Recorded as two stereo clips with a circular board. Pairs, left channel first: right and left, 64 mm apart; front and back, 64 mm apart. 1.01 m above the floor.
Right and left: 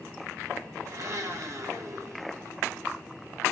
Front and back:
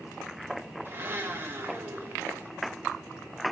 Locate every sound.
0.8 s a blender: 125° left, 1.3 m